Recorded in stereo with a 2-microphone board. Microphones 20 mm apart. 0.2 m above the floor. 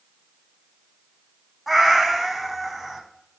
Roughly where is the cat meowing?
Centre.